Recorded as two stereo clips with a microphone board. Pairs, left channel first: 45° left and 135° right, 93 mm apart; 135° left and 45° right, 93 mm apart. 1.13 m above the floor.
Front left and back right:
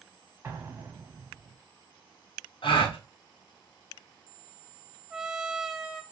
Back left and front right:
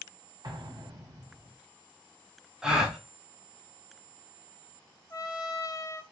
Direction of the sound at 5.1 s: 140° left.